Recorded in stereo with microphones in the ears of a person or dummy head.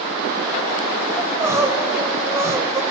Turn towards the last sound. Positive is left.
turn(degrees=-10)  # may be behind; listen again after turning